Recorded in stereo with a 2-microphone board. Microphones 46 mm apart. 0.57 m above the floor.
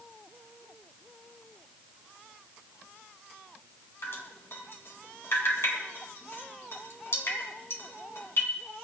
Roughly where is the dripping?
Left.